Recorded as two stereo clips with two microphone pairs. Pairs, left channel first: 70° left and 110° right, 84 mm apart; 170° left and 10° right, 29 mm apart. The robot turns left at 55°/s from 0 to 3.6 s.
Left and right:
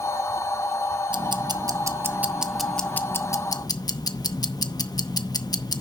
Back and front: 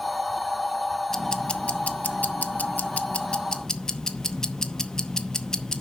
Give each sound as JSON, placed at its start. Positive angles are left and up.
{"t": 1.1, "sound": "ticking", "azimuth_deg": -120, "distance_m": 0.7}